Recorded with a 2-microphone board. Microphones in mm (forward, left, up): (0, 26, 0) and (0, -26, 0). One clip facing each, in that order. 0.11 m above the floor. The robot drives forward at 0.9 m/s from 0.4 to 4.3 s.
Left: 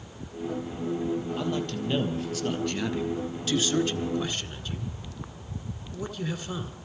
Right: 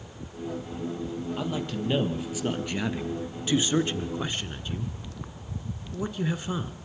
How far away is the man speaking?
About 3 m.